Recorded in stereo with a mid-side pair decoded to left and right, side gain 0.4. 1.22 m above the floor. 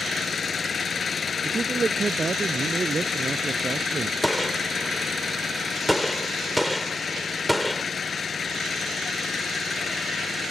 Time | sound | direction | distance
0.0 | an engine running | 45° left | ?
1.4 | a man speaking | 35° right | ?
4.2 | a gunshot | 5° left | ?